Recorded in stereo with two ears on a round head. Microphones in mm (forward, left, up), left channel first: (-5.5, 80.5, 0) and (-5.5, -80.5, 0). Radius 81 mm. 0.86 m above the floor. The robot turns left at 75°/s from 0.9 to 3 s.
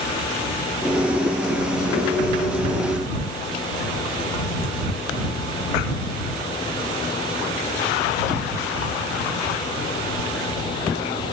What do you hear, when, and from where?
Only background noise.